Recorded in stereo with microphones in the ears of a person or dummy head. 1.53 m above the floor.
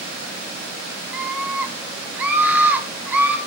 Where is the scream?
5° right (ahead or behind), 4 m.